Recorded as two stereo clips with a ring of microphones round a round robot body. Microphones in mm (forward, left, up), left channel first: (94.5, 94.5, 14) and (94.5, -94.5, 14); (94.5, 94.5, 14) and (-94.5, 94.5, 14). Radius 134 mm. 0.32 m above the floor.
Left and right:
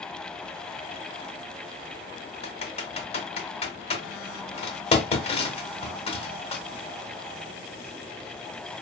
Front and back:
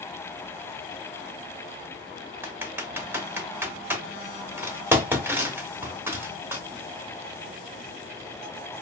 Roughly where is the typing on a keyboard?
Left.